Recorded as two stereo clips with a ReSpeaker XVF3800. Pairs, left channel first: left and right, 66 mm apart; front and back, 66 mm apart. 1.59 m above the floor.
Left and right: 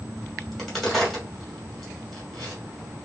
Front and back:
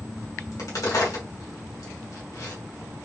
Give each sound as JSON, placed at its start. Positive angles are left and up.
{"t": 0.4, "sound": "a crack", "azimuth_deg": 0, "distance_m": 2.5}